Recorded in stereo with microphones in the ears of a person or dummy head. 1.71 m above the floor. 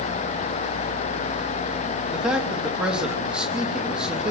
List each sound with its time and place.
2.1 s a man speaking: centre (ahead or behind), 3 m